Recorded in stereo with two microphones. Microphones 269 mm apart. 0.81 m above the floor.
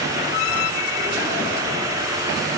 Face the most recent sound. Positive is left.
No sound to turn to.